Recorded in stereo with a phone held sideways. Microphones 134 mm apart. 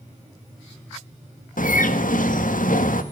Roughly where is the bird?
Left.